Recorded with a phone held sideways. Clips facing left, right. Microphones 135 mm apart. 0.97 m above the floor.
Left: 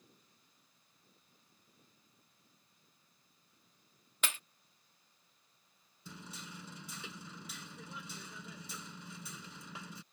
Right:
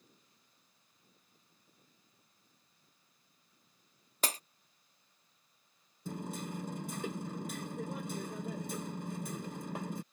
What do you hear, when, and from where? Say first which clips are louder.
4.2 s breaking glass: right 5 dB; 40° right (ahead or behind)
6.0 s hammering: right 11 dB; 50° right (ahead or behind)